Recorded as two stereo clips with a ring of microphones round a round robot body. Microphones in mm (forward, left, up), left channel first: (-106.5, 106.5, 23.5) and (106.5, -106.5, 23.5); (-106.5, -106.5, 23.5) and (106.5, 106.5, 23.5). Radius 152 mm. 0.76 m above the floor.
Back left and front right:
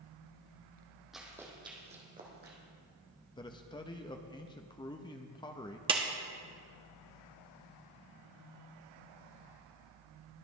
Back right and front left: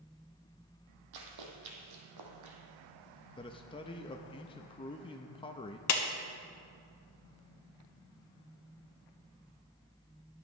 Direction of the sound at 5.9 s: 115° right.